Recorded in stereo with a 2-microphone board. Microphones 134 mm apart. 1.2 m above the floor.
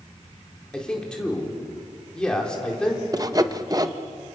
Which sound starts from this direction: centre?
A man speaking, at 0.7 s.